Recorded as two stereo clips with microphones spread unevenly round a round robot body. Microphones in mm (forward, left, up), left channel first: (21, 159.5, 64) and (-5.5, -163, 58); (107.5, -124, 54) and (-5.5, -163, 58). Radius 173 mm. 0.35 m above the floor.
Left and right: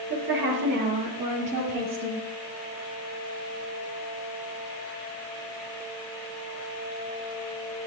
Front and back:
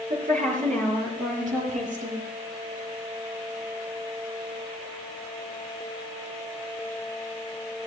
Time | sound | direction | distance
0.1 | a woman speaking | 155° right | 7 m